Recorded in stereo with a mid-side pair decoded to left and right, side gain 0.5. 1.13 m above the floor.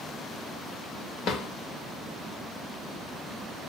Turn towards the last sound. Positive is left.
turn(degrees=70)